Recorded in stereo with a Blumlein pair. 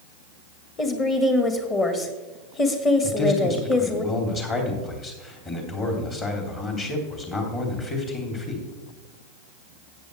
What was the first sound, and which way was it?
A woman speaking, 20° left.